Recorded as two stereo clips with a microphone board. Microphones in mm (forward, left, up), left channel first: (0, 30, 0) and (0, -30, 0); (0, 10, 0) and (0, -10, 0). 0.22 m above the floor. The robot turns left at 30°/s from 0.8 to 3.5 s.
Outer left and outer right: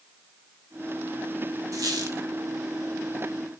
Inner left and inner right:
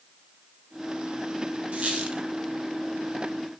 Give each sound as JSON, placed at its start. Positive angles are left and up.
{"t": 1.7, "sound": "a squeak", "side_deg": -85, "distance_m": 1.4}